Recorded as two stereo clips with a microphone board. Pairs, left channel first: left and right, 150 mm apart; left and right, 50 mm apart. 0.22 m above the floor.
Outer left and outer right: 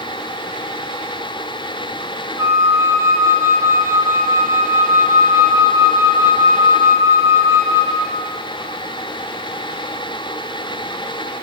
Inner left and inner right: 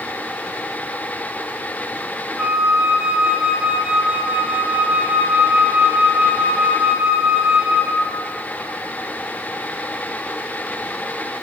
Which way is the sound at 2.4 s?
20° right (ahead or behind).